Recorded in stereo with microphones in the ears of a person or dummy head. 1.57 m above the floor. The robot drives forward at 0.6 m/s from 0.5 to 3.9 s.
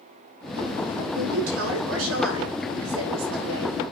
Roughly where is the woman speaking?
Right.